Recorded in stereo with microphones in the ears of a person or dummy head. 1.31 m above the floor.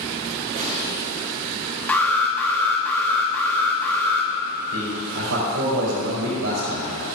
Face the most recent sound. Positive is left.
turn(degrees=-85)